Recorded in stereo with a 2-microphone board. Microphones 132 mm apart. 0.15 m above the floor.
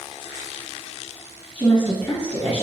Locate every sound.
1.6 s a woman speaking: 10° left (ahead or behind), 1.4 m